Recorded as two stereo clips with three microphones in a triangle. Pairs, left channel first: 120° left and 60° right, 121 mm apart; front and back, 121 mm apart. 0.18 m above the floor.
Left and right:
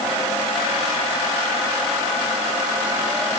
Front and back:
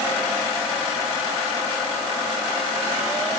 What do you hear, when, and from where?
Only background noise.